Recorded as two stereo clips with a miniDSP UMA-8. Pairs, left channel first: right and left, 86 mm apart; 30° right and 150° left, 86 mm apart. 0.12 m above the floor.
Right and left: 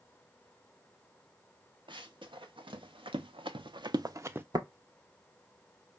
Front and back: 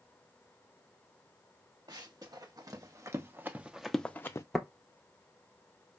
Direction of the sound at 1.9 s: 110° left.